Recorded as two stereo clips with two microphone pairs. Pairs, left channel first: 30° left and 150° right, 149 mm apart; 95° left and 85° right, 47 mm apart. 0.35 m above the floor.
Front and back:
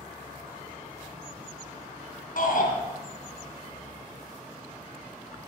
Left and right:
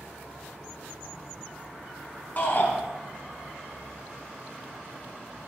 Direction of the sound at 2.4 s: 40° left.